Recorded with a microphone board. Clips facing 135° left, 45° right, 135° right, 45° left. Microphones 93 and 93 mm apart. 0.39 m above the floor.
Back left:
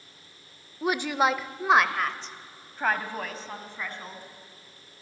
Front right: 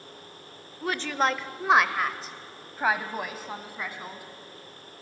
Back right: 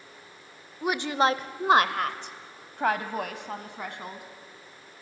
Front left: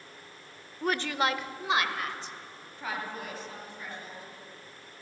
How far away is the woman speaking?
About 0.8 m.